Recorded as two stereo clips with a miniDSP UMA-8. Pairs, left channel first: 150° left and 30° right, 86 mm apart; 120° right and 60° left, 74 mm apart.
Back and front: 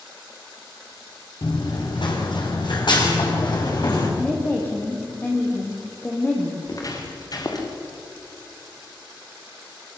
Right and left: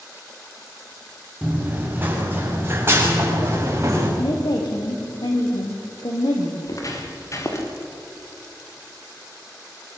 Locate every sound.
1.4 s running footsteps: 130° left, 4.5 m; by 4.1 s 110° left, 7.5 m
4.2 s a woman speaking: 140° right, 5 m
6.7 s footsteps: 165° right, 5 m; by 7.7 s 170° right, 4 m